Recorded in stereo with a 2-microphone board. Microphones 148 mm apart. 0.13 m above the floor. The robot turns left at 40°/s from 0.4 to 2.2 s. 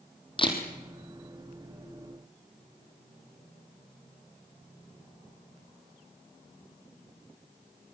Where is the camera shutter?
35° left (ahead or behind), 3.5 m; by 0.6 s 25° left (ahead or behind), 3.5 m.